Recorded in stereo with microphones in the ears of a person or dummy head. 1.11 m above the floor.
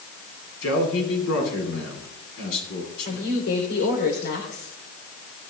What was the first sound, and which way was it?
A man speaking, 80° left.